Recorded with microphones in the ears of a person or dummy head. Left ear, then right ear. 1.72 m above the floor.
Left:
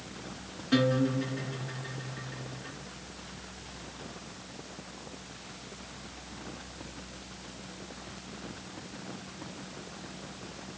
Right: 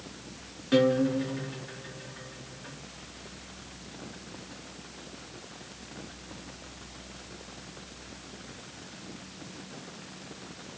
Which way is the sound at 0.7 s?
10° right (ahead or behind).